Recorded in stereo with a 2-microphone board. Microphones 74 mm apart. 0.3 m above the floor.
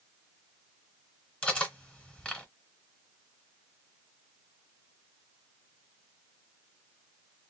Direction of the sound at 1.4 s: 15° left (ahead or behind).